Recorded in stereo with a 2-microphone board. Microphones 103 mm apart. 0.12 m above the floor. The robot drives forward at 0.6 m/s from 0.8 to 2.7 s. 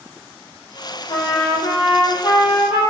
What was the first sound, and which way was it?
A trumpet, 65° left (ahead or behind).